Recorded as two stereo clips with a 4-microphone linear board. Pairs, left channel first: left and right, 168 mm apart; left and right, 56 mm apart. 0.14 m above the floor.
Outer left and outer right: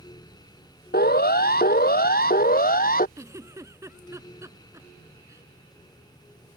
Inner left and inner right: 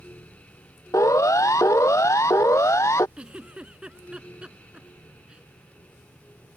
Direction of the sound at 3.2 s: 20° right (ahead or behind).